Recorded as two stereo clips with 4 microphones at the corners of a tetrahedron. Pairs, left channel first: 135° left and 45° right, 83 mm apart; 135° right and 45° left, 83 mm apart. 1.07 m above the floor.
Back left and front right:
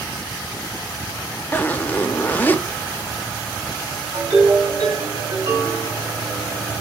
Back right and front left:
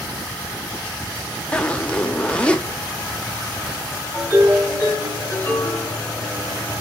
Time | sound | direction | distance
1.5 | a zipper | 175° left | 0.7 m
4.1 | a ringtone | 65° right | 3.5 m